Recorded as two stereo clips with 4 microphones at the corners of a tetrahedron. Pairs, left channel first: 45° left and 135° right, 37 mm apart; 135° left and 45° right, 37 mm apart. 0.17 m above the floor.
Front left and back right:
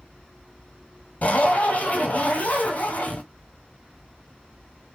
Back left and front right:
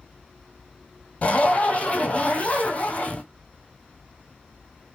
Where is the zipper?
85° left, 0.8 m.